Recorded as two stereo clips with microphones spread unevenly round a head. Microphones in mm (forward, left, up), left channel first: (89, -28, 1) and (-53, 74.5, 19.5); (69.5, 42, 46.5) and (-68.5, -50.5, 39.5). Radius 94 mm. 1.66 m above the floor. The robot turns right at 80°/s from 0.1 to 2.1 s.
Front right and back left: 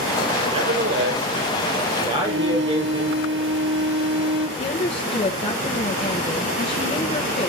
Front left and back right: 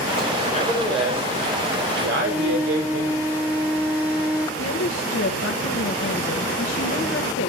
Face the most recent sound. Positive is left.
turn(degrees=25)